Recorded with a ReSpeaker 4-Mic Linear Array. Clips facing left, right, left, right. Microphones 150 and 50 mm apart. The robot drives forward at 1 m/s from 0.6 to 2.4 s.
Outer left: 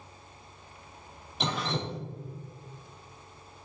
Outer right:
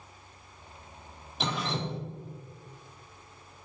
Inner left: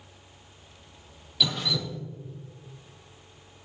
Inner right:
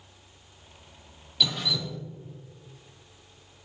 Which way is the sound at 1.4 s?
Centre (ahead or behind).